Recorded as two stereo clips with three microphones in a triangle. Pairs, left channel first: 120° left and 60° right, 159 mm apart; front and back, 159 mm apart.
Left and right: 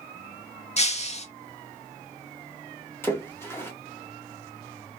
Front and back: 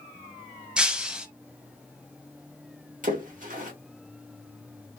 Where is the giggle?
No giggle in this recording.